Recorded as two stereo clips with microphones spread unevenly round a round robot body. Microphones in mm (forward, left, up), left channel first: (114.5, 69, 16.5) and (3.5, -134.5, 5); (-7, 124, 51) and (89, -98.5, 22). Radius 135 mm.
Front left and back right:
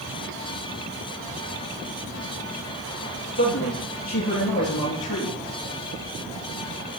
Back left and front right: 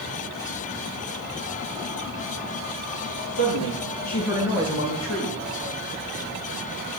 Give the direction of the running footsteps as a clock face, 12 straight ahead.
No running footsteps in this recording.